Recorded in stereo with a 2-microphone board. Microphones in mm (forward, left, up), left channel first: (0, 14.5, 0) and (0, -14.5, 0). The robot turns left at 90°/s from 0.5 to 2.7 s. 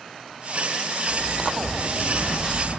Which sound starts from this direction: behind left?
A sliding door, at 1.1 s.